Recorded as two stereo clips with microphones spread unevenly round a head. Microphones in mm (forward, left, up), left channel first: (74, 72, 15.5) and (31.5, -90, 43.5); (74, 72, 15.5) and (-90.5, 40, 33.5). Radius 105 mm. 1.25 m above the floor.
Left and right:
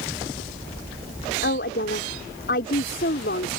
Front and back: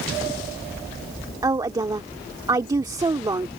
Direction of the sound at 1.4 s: 125° left.